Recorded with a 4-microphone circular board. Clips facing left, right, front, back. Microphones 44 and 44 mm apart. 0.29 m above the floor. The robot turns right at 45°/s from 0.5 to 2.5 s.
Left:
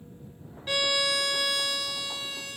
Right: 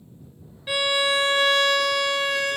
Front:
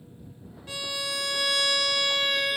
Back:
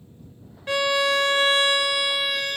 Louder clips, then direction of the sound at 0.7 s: Right 5 dB, back 12 dB; 165° right.